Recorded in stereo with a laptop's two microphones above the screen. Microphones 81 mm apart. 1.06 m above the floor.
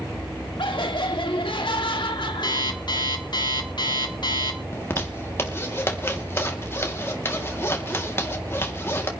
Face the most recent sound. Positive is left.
turn(degrees=30)  # may be behind; listen again after turning